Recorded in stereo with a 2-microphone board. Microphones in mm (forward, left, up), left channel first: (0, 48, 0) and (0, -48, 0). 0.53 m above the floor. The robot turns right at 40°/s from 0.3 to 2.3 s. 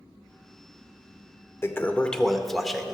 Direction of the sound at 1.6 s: 25° left (ahead or behind).